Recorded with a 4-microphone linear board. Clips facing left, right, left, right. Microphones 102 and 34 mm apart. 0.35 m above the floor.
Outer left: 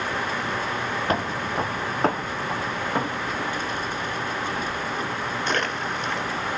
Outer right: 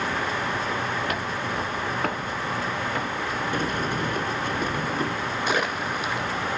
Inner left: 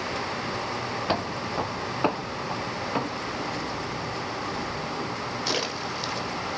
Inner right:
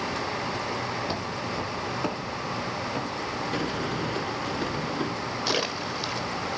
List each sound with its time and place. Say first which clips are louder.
1.1 s footsteps: outer left 3 dB, inner left 3 dB; 35° left (ahead or behind), 0.9 m; by 3.4 s 25° left (ahead or behind), 2 m
3.5 s a sliding door: outer right 2 dB, inner right 2 dB; 55° right (ahead or behind), 1.0 m
5.5 s a splash: outer right 1 dB, inner right 2 dB; 5° right (ahead or behind), 1.0 m